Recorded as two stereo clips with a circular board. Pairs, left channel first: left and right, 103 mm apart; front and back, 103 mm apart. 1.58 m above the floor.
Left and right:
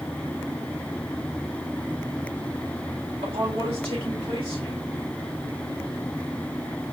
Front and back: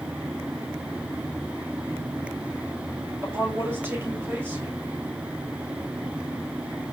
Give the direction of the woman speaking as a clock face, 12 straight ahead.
4 o'clock.